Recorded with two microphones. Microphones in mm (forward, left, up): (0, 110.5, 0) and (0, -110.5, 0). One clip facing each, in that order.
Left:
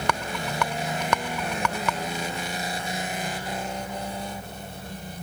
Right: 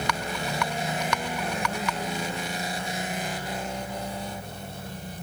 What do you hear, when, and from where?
0.1 s a rattle: 55° left (ahead or behind)